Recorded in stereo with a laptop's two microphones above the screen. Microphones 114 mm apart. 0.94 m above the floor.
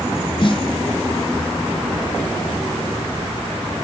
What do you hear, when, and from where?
0.4 s a snare drum: 45° left (ahead or behind), 0.8 m